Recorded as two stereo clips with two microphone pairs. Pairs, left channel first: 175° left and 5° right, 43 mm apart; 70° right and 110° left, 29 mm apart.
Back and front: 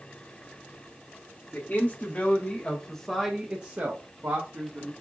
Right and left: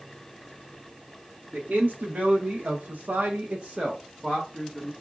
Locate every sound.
1.5 s a man speaking: 135° left, 2.5 m; by 4.9 s 10° left, 2.0 m